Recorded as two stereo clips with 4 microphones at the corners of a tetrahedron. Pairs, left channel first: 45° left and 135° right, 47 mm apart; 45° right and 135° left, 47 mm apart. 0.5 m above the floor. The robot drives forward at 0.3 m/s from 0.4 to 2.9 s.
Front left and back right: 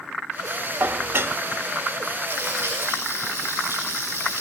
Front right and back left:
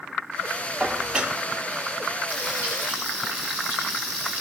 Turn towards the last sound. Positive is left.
turn(degrees=-175)